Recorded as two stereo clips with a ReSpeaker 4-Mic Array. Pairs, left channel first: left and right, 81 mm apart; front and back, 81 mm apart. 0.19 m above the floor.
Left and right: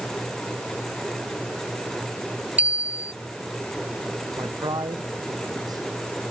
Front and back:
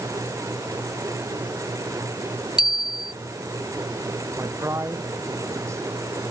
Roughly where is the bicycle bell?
Ahead.